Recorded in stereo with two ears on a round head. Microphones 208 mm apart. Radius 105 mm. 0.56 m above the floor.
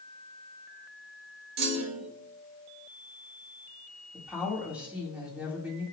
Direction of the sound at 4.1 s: 5° right (ahead or behind).